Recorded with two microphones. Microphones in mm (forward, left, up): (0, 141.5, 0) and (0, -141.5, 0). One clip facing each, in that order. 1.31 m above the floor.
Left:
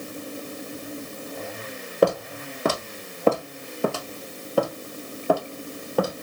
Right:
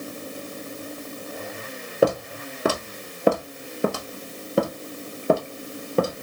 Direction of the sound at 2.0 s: 5° right (ahead or behind).